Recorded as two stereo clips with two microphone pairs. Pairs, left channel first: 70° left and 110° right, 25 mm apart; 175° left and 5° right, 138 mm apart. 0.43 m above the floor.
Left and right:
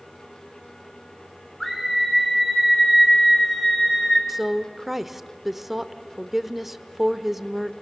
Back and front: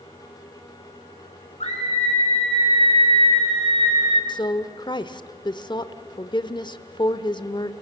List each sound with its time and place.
1.6 s a scream: 145° left, 7 m
4.3 s a woman speaking: 170° left, 0.9 m